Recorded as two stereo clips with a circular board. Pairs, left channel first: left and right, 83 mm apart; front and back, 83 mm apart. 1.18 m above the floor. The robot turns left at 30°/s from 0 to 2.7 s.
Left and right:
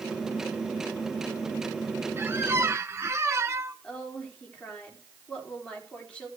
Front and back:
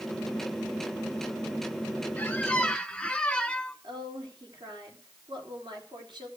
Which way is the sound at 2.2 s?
55° right.